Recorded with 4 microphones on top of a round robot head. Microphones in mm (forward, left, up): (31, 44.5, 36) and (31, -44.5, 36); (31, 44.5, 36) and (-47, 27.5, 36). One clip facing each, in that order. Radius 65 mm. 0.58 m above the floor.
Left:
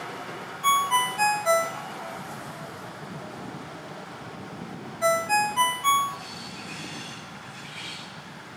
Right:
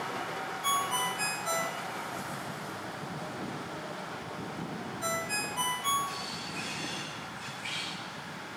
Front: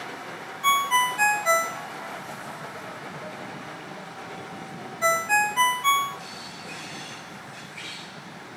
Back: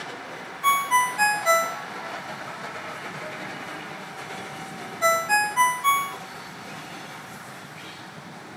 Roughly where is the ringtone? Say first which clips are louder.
Left 9 dB, back 1 dB; behind left.